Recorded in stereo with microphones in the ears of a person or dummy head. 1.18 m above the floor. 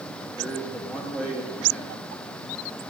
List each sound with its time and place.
0.4 s a man speaking: 5° left (ahead or behind), 1.9 m